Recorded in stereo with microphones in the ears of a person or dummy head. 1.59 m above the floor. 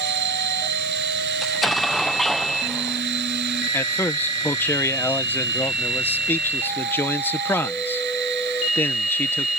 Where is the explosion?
Centre (ahead or behind).